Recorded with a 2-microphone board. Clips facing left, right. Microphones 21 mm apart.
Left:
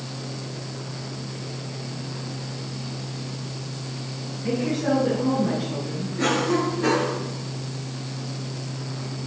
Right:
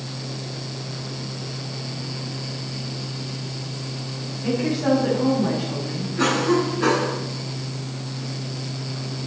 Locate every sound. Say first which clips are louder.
4.4 s a woman speaking: right 2 dB; 75° right (ahead or behind), 5.5 m
6.2 s a cough: right 2 dB; 75° right (ahead or behind), 5.5 m